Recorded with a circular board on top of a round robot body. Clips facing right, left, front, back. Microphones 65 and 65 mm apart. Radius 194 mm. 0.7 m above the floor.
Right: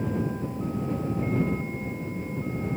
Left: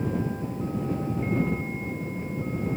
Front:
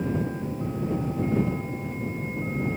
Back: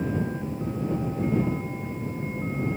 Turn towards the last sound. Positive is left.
No sound to turn to.